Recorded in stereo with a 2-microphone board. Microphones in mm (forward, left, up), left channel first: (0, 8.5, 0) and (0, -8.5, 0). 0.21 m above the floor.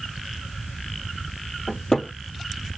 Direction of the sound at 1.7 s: 40° left (ahead or behind).